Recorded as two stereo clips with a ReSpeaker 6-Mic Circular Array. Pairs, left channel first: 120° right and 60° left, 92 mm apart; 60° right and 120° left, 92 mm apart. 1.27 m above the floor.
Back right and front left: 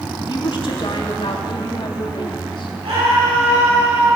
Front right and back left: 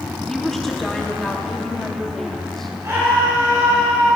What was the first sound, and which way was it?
A woman speaking, 145° right.